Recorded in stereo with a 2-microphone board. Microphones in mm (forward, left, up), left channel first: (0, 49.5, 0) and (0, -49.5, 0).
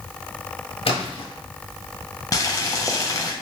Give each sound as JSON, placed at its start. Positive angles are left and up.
{"t": 0.8, "sound": "a splash", "side_deg": 75, "distance_m": 0.9}
{"t": 2.3, "sound": "boiling", "side_deg": 35, "distance_m": 0.5}